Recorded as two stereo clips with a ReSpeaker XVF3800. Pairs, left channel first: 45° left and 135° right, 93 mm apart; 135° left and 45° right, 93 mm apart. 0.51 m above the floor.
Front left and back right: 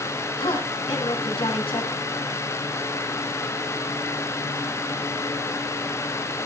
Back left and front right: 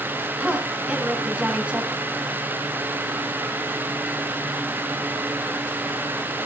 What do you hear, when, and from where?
0.4 s a woman speaking: 30° left, 4 m